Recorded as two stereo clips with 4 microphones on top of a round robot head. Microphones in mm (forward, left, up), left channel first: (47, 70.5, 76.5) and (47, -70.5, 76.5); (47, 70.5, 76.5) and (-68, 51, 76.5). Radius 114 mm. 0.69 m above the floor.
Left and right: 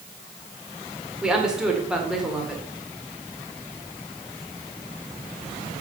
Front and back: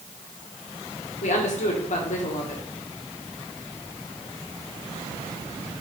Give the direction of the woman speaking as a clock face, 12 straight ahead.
12 o'clock.